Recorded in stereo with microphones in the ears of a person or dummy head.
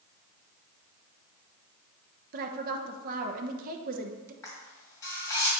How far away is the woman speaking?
About 0.9 m.